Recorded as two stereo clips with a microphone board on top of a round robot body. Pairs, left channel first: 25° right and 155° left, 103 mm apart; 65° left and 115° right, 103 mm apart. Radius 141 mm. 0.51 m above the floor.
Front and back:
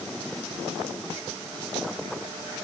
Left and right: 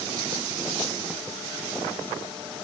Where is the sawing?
No sawing in this recording.